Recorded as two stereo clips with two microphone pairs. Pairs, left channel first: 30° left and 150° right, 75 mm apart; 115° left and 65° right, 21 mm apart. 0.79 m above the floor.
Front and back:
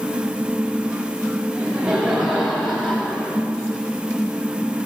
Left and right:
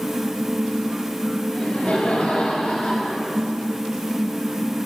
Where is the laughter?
135° left, 4 m; by 3.3 s 110° left, 3.5 m.